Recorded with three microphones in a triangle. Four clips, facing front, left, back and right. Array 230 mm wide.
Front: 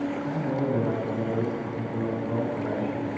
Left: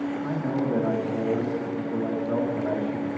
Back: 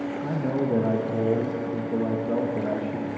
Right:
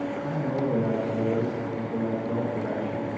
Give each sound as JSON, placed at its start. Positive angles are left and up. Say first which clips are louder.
{"t": 0.2, "sound": "a man speaking", "louder": "even, back 5 dB", "azimuth_deg": 170, "distance_m": 1.3}